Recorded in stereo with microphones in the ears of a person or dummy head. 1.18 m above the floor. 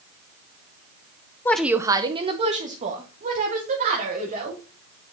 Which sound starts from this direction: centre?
A woman speaking, at 1.4 s.